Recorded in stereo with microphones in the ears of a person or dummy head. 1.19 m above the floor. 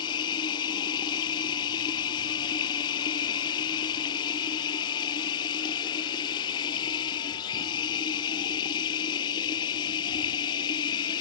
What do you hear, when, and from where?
0.0 s running water: 25° left (ahead or behind)